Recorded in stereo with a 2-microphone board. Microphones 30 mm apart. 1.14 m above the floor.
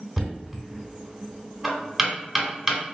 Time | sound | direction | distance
0.2 | knocking | 10° right (ahead or behind) | 1.1 m